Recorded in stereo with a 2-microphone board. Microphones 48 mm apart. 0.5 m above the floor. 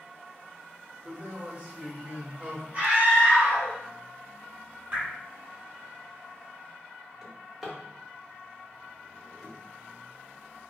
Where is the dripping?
35° right (ahead or behind), 1.4 m.